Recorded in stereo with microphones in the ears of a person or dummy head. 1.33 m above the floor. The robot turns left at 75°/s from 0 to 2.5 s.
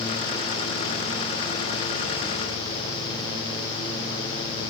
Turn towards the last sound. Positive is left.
No sound to turn to.